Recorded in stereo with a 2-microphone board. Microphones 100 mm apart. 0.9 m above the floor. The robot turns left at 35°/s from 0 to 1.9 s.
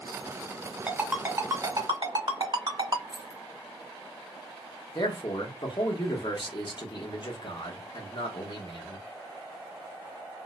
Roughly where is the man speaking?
Left.